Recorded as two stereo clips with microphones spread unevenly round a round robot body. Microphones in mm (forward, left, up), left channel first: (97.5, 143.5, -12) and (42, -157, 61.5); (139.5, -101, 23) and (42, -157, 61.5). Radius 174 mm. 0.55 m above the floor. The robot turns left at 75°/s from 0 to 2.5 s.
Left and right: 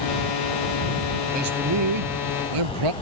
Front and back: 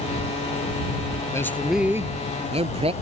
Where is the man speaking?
35° right; by 2.9 s 125° right.